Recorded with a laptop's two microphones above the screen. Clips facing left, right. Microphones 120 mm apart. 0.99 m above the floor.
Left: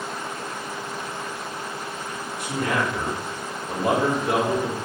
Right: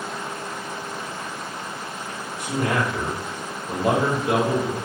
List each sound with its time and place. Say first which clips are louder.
2.4 s a man speaking: right 1 dB; 60° right (ahead or behind), 1.7 m; by 4.8 s 5° right (ahead or behind), 1.3 m